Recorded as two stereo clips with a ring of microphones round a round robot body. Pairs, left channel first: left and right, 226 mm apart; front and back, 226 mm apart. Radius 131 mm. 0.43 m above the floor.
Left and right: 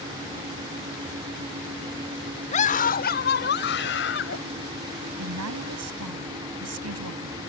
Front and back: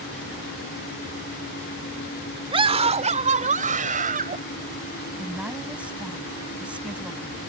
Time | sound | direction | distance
2.5 | a scream | 125° left | ?
5.2 | a woman speaking | 95° right | ?